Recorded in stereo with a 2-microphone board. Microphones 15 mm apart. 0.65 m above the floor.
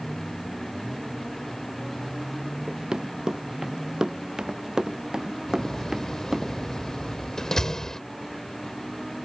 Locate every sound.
2.7 s running footsteps: 55° right (ahead or behind); by 6.5 s 40° right (ahead or behind)
5.5 s a door slam: 35° left (ahead or behind)